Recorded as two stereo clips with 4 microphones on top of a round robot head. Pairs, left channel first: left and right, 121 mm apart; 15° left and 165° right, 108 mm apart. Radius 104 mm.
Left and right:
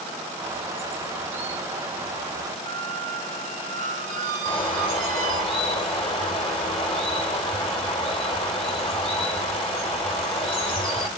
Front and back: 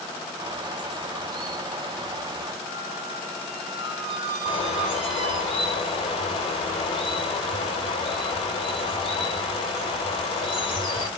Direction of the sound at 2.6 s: 115° right.